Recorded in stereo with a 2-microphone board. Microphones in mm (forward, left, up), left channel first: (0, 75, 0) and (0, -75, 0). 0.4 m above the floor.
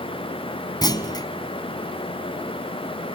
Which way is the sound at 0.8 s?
25° left (ahead or behind).